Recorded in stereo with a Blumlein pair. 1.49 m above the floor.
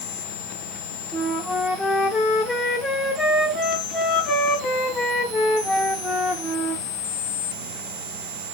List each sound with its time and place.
1.1 s a flute: 15° left, 0.6 m